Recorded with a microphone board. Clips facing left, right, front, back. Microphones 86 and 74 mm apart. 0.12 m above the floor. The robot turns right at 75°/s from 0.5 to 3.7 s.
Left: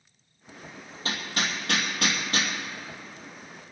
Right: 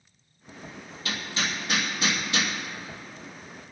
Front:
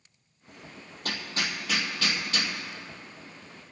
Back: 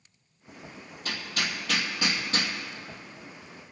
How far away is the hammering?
About 2.5 m.